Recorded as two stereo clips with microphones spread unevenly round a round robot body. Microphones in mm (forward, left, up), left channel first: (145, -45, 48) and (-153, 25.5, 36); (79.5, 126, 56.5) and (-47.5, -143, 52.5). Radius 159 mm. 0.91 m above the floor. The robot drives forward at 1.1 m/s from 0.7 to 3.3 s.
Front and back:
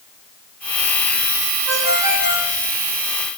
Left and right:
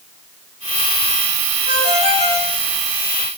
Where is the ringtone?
95° left, 3.5 m; by 2.6 s 110° left, 4 m.